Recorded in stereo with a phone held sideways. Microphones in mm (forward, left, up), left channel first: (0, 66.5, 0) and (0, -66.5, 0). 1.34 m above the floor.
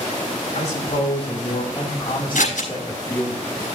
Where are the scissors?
75° left (ahead or behind), 5 m.